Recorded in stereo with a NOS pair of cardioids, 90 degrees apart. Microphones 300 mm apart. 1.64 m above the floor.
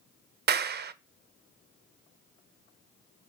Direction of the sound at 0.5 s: 40° right.